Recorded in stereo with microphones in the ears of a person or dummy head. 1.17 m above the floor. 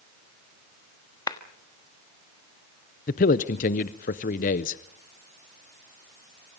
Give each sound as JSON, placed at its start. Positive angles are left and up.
{"t": 1.3, "sound": "a clap", "side_deg": 15, "distance_m": 1.4}
{"t": 3.1, "sound": "a man speaking", "side_deg": 40, "distance_m": 0.6}